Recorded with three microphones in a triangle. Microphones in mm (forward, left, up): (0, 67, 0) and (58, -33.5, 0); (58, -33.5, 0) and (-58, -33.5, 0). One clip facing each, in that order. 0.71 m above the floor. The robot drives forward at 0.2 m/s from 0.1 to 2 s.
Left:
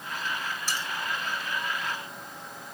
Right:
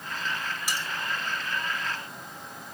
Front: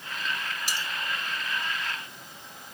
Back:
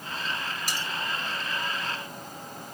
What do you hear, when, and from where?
0.7 s cutlery clinking: 140° right, 4 m